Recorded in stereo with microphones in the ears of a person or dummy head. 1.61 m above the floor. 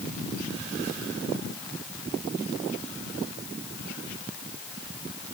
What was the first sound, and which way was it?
Only background noise.